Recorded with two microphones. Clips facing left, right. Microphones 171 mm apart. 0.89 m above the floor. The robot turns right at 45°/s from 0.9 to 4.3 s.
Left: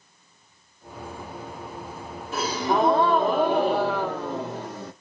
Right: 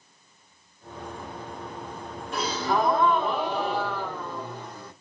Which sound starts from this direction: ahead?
A gasp, at 2.3 s.